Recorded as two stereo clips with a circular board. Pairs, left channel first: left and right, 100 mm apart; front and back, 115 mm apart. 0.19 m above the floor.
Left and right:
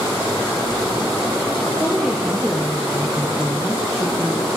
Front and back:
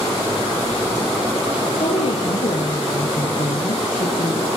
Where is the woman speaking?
5° right, 6 m; by 4.5 s 20° right, 4.5 m.